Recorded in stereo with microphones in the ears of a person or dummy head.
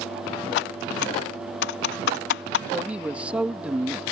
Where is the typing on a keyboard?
70° left (ahead or behind).